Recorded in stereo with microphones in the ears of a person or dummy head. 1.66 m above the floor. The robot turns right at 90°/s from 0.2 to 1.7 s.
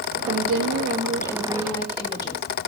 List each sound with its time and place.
0.3 s a woman speaking: 105° right, 2.5 m; by 2.4 s 20° left, 2.5 m